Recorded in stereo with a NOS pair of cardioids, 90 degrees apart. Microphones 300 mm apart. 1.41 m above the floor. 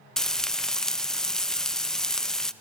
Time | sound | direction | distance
0.2 | frying | straight ahead | 0.5 m